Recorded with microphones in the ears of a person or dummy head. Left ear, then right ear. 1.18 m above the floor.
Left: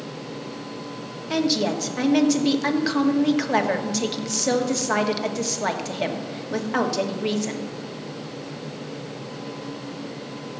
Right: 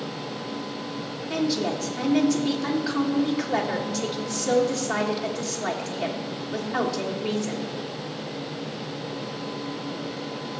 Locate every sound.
1.3 s a woman speaking: 35° left (ahead or behind), 1.3 m